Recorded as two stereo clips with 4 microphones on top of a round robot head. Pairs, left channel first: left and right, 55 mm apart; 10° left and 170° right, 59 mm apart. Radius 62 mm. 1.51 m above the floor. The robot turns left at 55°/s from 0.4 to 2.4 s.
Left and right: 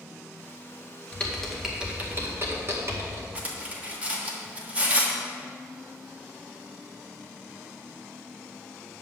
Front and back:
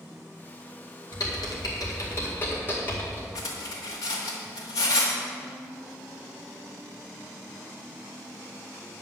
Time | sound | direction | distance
1.1 | typing on a keyboard | 20° left | 2 m
3.4 | cutlery clinking | 30° right | 1.5 m